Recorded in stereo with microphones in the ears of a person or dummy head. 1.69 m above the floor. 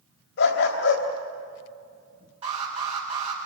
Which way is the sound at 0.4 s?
70° left (ahead or behind).